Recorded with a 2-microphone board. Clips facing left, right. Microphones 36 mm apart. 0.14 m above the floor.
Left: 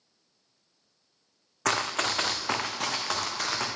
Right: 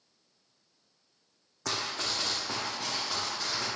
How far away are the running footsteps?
About 0.6 m.